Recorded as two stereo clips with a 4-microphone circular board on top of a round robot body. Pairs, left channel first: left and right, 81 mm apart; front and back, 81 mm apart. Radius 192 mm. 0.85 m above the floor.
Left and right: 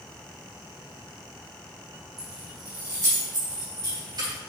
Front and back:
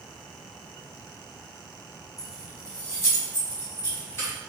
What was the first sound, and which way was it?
Keys jangling, 45° right.